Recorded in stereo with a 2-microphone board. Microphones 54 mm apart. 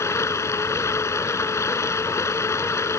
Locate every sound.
0.0 s running water: 65° left (ahead or behind)